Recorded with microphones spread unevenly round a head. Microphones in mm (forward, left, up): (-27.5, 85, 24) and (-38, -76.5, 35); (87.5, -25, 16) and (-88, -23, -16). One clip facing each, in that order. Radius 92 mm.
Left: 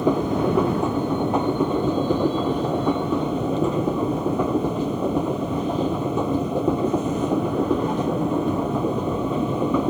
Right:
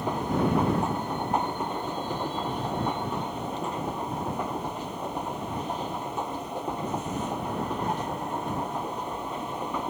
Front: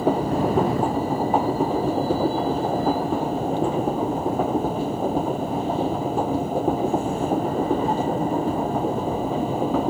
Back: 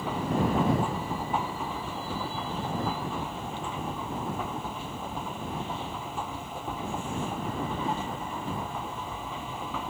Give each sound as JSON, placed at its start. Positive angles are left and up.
{"t": 0.0, "sound": "a machine running", "azimuth_deg": 55}